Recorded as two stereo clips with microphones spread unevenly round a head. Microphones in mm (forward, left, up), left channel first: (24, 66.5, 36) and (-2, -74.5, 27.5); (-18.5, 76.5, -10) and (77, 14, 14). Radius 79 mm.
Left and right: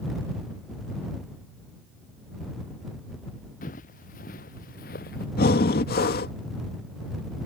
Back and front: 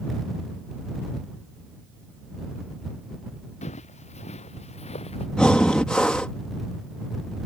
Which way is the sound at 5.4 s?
65° left.